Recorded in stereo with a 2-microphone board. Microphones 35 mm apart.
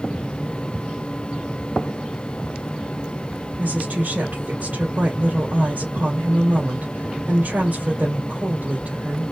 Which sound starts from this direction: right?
A woman speaking, at 3.6 s.